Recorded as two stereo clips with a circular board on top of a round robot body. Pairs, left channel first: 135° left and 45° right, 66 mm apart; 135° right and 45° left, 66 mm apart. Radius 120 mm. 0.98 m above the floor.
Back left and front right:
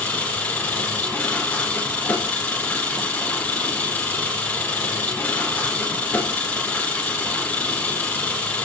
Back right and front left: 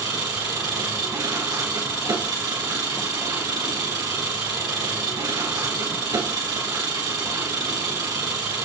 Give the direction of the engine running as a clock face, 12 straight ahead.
10 o'clock.